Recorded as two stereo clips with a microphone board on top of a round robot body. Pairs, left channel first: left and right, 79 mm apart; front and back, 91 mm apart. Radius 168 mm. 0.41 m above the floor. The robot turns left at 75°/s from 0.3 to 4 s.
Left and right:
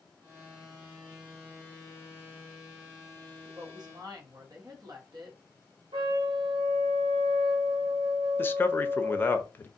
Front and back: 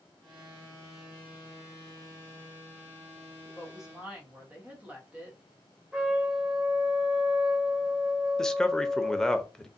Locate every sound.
3.5 s a woman speaking: 70° right, 1.3 m; by 5.4 s 110° right, 1.3 m
5.9 s a trumpet: 100° right, 1.0 m
8.4 s a man speaking: 75° left, 0.8 m